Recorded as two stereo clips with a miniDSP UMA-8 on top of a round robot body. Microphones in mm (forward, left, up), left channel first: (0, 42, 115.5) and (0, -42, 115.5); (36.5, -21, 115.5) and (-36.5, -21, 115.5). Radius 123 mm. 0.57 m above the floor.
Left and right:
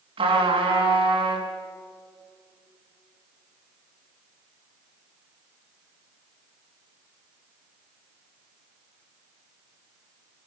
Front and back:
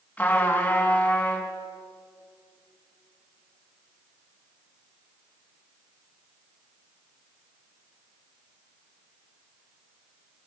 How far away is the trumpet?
About 4 m.